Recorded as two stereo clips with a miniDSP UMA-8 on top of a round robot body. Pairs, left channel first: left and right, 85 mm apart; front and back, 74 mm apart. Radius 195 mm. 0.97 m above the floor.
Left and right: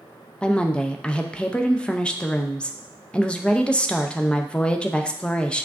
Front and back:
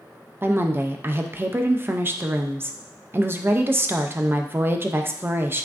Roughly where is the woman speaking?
Behind.